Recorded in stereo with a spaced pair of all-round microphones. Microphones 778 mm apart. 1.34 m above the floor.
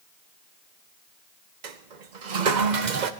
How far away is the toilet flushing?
About 0.9 m.